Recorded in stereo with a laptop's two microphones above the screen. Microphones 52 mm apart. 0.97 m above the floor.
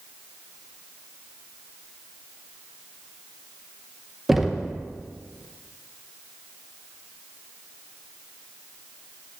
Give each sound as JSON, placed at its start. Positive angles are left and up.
{"t": 4.3, "sound": "knocking", "side_deg": -5, "distance_m": 0.6}